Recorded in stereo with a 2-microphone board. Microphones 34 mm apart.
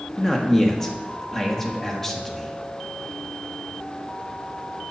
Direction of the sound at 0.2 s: 10° left (ahead or behind).